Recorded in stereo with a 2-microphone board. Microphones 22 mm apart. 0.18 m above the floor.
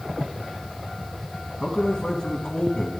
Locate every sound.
1.6 s a man speaking: 30° left (ahead or behind), 1.1 m